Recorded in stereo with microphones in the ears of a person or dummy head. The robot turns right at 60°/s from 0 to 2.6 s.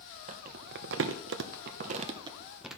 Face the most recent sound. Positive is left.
turn(degrees=-5)  # may be behind; listen again after turning